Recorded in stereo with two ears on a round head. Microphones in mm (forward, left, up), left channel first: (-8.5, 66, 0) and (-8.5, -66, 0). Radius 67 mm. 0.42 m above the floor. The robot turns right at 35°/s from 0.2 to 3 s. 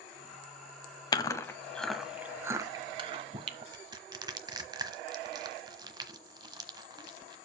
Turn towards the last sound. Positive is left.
turn(degrees=-30)  # may be behind; listen again after turning